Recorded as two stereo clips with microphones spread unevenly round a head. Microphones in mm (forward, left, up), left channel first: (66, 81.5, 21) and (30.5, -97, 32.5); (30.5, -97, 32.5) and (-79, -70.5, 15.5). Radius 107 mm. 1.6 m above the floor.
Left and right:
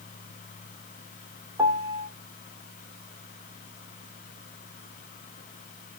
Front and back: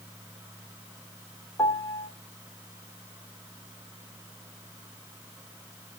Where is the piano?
45° right, 1.4 m.